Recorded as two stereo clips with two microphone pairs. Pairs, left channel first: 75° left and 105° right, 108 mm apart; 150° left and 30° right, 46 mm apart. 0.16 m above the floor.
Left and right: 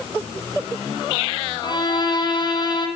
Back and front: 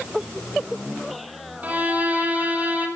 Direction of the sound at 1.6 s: 30° left.